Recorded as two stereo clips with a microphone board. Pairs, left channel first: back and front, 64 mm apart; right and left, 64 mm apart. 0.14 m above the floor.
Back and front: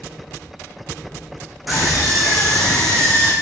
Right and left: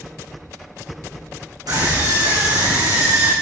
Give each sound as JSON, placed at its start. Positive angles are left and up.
{"t": 1.7, "sound": "a scream", "azimuth_deg": 90, "distance_m": 8.0}